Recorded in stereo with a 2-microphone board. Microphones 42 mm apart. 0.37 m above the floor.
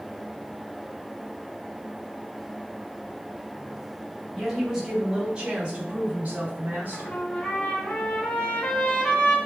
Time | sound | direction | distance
4.3 | a woman speaking | 5° right (ahead or behind) | 2 m
6.9 | a trumpet | 20° left (ahead or behind) | 1.9 m